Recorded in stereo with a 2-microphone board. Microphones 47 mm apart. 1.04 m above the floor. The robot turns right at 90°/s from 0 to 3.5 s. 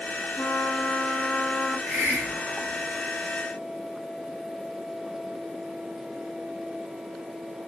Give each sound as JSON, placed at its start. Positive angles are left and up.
{"t": 0.4, "sound": "a trumpet", "azimuth_deg": 50, "distance_m": 2.0}
{"t": 1.9, "sound": "a hiss", "azimuth_deg": -140, "distance_m": 1.8}